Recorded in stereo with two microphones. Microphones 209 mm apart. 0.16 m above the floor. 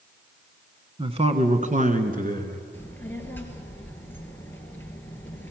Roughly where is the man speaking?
Right.